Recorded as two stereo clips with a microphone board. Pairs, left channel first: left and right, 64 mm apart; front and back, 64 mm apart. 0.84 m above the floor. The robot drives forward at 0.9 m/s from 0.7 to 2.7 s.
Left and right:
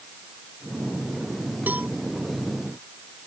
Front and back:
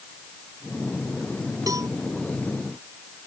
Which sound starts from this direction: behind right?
A cowbell, at 1.7 s.